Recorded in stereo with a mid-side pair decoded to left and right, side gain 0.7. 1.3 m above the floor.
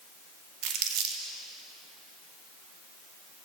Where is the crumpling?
65° right, 1.7 m.